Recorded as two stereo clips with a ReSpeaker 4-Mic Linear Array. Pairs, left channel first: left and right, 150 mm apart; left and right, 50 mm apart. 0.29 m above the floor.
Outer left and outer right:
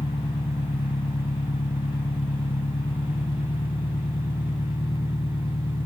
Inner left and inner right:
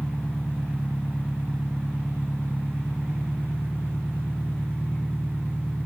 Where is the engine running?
35° left (ahead or behind), 1.1 m.